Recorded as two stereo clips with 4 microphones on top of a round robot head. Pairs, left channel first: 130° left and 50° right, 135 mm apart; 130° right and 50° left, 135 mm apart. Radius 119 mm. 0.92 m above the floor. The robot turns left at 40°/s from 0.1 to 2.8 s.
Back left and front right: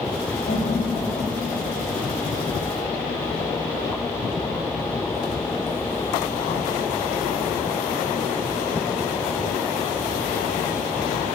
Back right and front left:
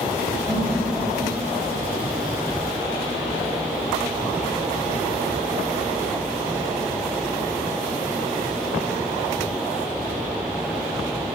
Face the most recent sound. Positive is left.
turn(degrees=50)